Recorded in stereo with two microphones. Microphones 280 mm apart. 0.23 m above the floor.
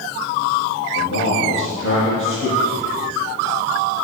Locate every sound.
0.9 s a man speaking: 40° left (ahead or behind), 6.5 m